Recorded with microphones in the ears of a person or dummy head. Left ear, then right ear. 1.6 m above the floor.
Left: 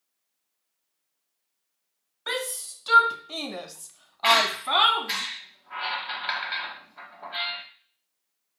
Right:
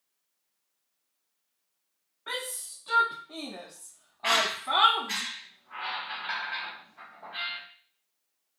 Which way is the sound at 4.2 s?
35° left (ahead or behind).